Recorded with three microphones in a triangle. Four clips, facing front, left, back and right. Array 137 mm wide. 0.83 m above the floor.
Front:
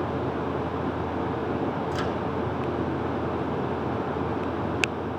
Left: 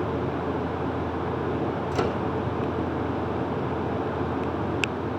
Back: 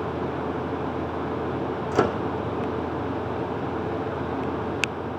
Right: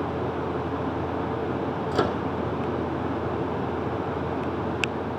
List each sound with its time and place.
1.9 s a microwave: 160° right, 1.9 m